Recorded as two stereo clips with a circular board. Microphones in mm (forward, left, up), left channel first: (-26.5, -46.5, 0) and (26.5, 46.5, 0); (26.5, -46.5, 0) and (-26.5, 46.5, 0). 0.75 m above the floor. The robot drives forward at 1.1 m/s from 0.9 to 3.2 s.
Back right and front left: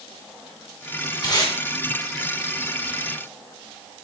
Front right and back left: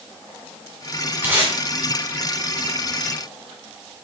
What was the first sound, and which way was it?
Tape being pulled, 170° right.